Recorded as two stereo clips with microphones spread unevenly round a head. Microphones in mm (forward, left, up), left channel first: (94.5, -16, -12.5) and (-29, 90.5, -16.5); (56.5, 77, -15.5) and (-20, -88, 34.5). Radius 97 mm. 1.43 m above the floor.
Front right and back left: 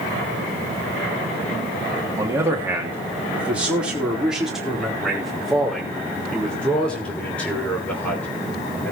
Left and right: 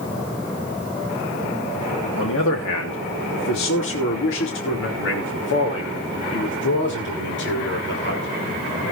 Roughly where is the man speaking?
Ahead left.